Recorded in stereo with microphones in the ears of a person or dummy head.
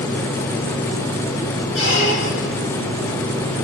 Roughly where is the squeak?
Left.